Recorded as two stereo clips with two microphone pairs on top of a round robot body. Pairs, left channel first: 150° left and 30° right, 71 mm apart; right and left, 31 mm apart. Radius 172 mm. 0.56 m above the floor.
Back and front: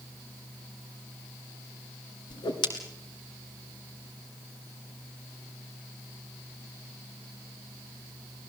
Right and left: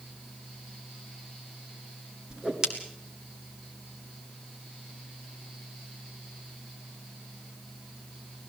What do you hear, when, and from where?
2.3 s a whoosh: 155° left, 2.0 m